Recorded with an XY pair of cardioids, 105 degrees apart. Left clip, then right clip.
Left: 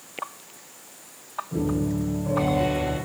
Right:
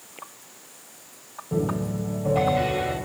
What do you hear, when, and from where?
1.5 s a piano: 65° right, 4 m